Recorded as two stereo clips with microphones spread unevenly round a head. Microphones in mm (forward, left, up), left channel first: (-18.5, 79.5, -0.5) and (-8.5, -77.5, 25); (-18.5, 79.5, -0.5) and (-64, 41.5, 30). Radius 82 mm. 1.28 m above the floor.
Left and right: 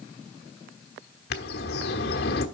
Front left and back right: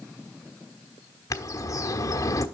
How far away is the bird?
About 1.2 m.